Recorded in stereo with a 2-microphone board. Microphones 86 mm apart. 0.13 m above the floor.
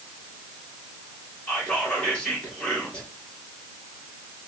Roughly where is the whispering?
Centre.